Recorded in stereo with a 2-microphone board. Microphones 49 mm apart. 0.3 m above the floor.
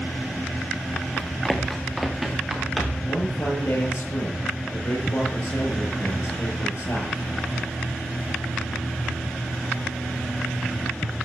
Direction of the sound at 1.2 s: 15° left (ahead or behind).